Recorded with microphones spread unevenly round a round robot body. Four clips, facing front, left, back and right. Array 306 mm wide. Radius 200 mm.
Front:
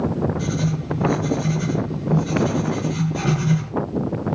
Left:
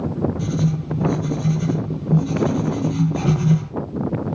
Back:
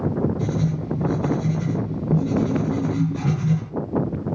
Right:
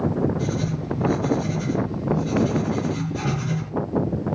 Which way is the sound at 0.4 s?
115° left.